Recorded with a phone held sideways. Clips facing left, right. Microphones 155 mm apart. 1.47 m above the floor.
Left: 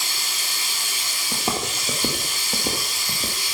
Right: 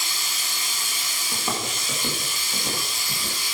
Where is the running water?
85° left, 5 m.